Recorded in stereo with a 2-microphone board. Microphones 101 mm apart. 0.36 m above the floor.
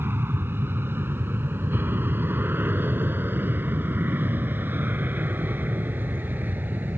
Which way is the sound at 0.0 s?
25° right (ahead or behind).